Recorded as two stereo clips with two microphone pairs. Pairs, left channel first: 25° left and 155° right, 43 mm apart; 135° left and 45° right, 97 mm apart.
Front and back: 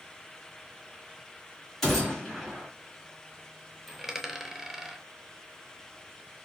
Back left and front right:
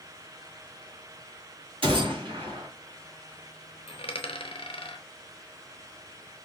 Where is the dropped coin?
125° left, 0.6 m.